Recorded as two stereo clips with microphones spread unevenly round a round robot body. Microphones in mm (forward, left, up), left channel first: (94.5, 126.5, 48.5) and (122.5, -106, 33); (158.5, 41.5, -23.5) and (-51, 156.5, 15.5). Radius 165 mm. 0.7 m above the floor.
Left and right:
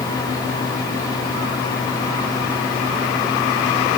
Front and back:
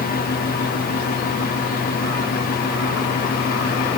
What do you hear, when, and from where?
Only background noise.